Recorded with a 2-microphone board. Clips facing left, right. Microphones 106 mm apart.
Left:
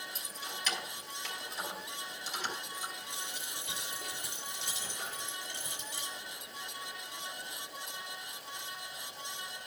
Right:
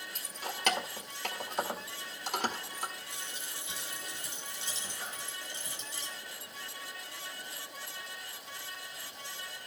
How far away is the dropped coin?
About 8.5 m.